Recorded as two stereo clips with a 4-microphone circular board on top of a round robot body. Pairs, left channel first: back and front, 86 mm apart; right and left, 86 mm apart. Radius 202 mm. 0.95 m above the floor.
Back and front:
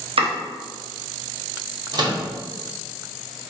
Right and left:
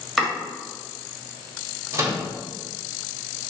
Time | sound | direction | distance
0.2 | chopping | 5° left | 1.2 m
1.9 | a microwave | 35° left | 1.2 m